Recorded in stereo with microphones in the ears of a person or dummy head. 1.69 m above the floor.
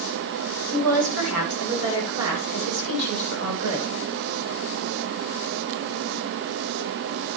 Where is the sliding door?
No sliding door in this recording.